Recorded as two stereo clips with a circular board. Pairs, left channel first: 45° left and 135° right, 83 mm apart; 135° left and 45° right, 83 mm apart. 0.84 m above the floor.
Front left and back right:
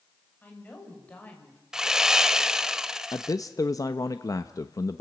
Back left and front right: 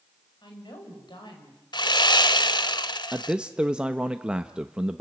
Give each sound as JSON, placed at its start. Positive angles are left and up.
{"t": 0.4, "sound": "a woman speaking", "azimuth_deg": 115, "distance_m": 5.5}
{"t": 1.7, "sound": "sawing", "azimuth_deg": 140, "distance_m": 0.9}
{"t": 3.1, "sound": "a man speaking", "azimuth_deg": 30, "distance_m": 0.7}